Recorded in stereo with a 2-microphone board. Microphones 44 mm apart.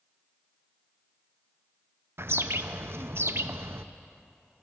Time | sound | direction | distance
2.2 | a bird | 65° right (ahead or behind) | 0.5 m